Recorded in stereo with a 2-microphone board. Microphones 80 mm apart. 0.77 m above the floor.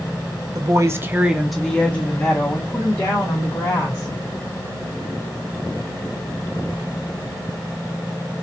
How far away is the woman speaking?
About 0.7 m.